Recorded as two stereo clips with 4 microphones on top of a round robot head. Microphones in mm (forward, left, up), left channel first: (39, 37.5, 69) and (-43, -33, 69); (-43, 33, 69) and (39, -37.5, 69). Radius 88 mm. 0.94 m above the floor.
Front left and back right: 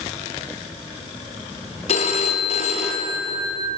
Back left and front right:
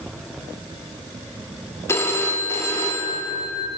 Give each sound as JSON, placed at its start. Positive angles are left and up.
{"t": 1.9, "sound": "a phone ringing", "azimuth_deg": 70, "distance_m": 0.6}